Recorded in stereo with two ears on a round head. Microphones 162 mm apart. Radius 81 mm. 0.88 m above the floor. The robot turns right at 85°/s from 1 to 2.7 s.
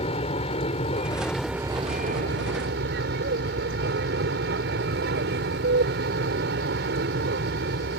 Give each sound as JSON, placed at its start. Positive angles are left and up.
{"t": 0.0, "sound": "an aircraft", "azimuth_deg": 145}